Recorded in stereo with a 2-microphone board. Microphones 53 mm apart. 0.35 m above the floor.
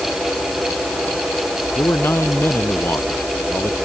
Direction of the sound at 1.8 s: 50° left (ahead or behind).